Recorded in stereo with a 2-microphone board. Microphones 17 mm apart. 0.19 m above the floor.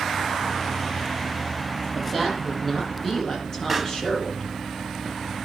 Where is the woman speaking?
20° left (ahead or behind), 6.5 m; by 4.5 s 40° left (ahead or behind), 6 m.